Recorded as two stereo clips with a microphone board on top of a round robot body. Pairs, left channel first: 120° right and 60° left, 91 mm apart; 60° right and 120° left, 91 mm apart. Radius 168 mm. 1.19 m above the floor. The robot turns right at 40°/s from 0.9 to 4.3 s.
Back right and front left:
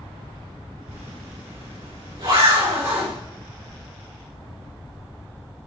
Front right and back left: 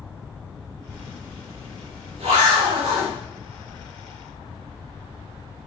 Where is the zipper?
50° left, 4.5 m; by 3.1 s 140° left, 4.5 m.